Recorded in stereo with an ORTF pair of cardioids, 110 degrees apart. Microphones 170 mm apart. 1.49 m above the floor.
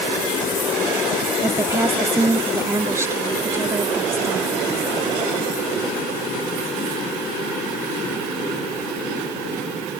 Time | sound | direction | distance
1.4 | a woman speaking | 15° right | ?